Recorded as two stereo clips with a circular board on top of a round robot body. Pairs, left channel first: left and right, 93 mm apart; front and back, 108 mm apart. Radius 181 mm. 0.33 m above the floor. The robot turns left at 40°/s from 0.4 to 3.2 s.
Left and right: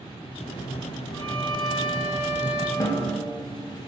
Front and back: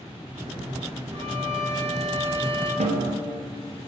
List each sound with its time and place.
1.1 s a violin: 160° left, 2 m; by 2.7 s 95° left, 2 m
2.8 s a snare drum: 155° left, 0.5 m; by 3.2 s 135° left, 0.5 m